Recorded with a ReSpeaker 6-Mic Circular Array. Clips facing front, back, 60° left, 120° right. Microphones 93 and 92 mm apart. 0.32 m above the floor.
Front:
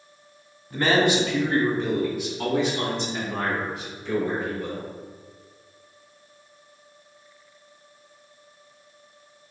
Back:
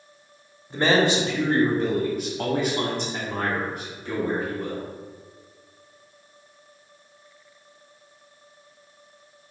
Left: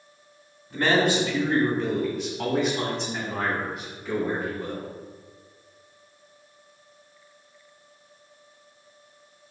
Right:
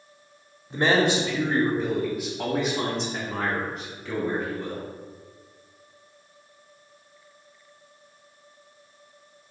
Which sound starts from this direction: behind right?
A man speaking, at 0.7 s.